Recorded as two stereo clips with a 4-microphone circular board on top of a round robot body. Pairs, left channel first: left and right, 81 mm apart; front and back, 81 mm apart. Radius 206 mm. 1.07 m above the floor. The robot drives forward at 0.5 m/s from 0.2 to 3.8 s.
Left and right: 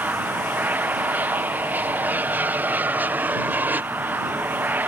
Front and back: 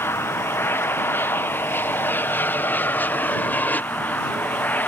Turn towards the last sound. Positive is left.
turn(degrees=-45)